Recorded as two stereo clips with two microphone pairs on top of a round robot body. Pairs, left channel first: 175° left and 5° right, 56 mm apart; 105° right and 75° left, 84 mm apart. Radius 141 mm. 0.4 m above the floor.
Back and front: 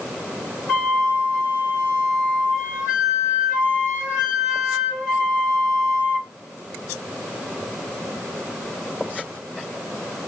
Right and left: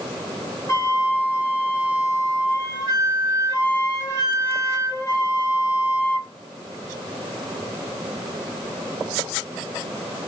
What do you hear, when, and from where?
0.7 s a flute: 145° right, 1.6 m